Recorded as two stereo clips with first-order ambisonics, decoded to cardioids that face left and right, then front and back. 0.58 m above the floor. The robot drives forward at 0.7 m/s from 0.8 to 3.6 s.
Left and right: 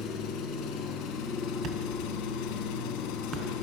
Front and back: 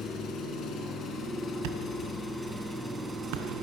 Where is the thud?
150° right, 1.8 m; by 3.5 s 160° right, 3 m.